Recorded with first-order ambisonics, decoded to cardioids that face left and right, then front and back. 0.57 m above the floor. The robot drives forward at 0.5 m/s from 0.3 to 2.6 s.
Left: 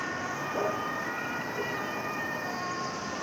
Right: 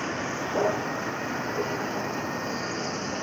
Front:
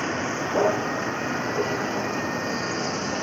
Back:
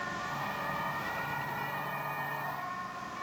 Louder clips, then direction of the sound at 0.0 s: Right 3 dB, front 9 dB; 20° right.